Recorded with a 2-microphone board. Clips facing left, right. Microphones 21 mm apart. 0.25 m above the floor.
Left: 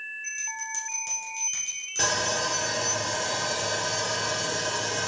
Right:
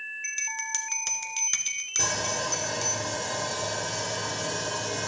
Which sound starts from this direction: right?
A bell, at 0.2 s.